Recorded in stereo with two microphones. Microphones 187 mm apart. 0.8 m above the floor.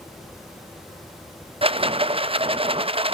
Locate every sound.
1.6 s a rattle: 30° right (ahead or behind), 0.5 m